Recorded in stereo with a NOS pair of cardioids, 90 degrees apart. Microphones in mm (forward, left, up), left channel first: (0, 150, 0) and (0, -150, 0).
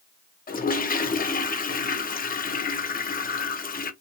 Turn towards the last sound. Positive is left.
turn(degrees=30)